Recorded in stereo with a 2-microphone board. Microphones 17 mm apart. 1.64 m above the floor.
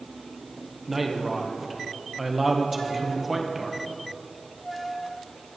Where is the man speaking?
5° right (ahead or behind), 1.4 m.